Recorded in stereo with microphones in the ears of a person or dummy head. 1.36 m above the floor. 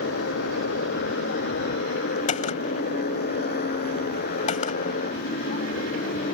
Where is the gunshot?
45° left (ahead or behind).